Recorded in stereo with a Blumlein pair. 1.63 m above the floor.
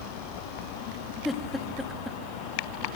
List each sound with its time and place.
1.2 s a giggle: 10° left, 4 m